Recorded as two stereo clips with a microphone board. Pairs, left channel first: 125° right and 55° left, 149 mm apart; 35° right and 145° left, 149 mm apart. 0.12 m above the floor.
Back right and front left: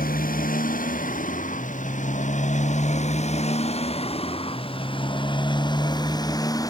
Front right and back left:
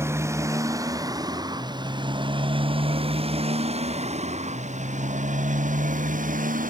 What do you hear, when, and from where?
0.0 s a motorcycle: 140° right; by 6.7 s 170° left